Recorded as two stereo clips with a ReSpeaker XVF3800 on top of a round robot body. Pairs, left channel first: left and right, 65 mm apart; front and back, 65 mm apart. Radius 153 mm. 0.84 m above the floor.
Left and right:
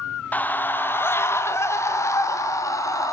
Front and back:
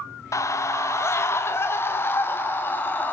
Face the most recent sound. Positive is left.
turn(degrees=60)